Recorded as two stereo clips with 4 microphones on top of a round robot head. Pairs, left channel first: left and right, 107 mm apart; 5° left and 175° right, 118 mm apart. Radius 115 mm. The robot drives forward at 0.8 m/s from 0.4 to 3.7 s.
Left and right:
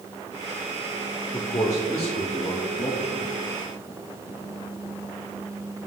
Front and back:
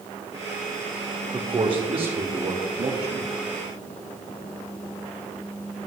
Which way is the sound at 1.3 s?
140° left.